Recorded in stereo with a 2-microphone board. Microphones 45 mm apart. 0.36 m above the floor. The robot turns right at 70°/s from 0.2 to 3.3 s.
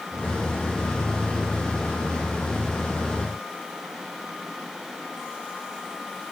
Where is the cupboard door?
I don't hear a cupboard door.